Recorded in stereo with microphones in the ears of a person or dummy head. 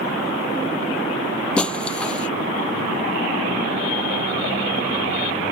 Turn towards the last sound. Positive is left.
turn(degrees=5)  # may be behind; listen again after turning